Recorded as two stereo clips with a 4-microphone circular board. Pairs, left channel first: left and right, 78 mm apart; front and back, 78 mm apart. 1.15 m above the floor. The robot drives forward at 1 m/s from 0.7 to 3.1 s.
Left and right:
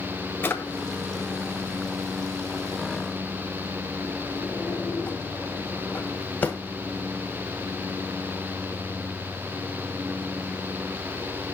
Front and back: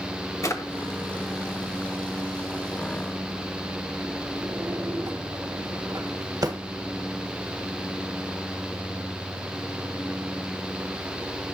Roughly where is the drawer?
Ahead left.